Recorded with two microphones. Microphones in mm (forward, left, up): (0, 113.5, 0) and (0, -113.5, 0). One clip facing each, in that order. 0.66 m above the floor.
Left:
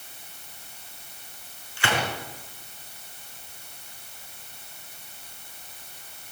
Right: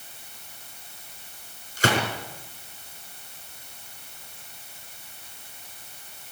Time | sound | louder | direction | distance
1.8 | a gunshot | right 4 dB | 40° right (ahead or behind) | 5 m